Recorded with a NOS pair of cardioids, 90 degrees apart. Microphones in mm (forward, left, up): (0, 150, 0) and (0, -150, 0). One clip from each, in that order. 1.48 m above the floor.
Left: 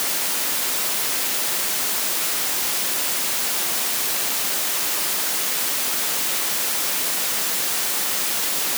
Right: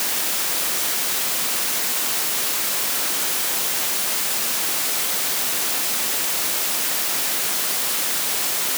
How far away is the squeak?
I don't hear a squeak.